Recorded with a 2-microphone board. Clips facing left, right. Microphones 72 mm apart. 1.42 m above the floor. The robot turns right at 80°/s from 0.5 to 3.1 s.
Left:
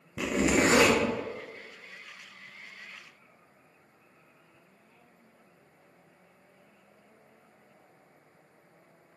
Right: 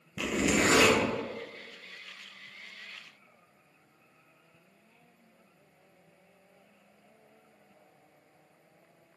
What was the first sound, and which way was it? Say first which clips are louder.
A zipper: left 2 dB; 25° left (ahead or behind).